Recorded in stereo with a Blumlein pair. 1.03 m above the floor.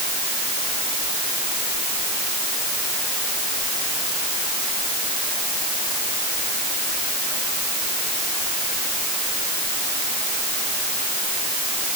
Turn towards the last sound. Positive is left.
No sound to turn to.